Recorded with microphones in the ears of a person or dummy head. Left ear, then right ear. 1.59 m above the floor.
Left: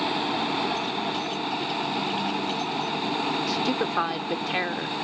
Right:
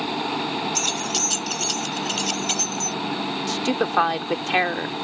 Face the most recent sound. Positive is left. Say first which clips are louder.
# right 2 dB
turn(degrees=-30)  # may be behind; listen again after turning